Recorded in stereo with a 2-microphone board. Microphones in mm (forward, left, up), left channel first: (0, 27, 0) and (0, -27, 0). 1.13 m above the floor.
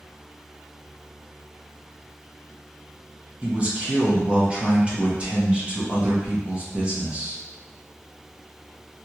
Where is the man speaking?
25° right (ahead or behind), 1.0 m.